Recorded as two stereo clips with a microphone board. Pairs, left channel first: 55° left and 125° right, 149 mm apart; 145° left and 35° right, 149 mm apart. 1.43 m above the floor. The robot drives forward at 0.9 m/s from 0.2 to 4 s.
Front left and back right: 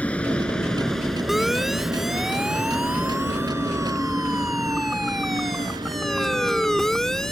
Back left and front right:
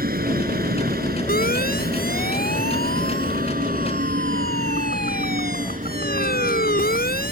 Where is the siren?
145° left; by 7.3 s 140° left.